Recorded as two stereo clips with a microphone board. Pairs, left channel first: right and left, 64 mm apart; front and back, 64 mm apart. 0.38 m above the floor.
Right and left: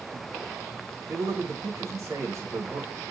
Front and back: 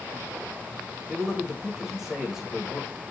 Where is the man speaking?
95° left, 1.3 m.